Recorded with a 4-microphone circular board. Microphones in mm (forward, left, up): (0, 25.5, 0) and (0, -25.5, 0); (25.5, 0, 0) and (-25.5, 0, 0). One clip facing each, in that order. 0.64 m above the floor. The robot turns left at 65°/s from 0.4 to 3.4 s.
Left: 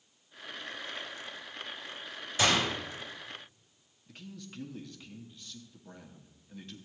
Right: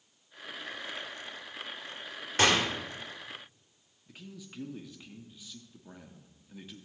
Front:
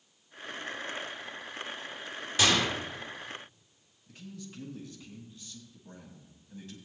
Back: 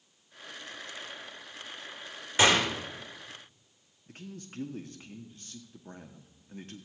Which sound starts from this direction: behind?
A man speaking, at 4.1 s.